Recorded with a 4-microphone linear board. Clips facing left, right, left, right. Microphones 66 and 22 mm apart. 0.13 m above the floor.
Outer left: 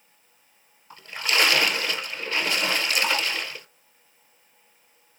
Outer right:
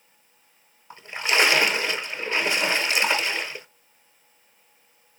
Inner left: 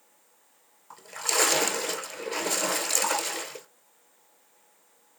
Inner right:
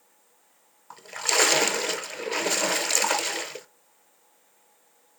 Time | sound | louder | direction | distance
0.9 | a splash | outer right 2 dB, inner right 3 dB | 25° right (ahead or behind) | 0.6 m